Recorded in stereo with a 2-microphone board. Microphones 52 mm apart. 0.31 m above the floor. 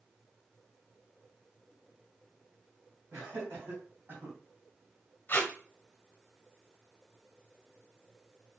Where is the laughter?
55° right (ahead or behind), 2 m; by 4.4 s 40° right (ahead or behind), 2 m.